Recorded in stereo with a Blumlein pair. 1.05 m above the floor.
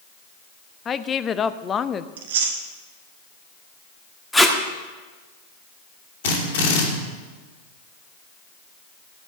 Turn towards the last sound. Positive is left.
turn(degrees=55)